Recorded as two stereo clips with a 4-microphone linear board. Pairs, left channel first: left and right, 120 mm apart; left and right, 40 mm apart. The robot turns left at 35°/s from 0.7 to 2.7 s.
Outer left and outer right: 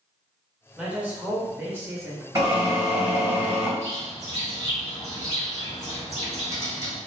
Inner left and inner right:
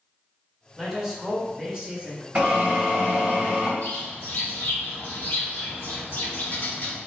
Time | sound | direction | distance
0.8 | a man speaking | 10° right (ahead or behind) | 0.8 m
2.4 | a drill | 30° right (ahead or behind) | 1.8 m
3.8 | a bird | 60° left (ahead or behind) | 0.9 m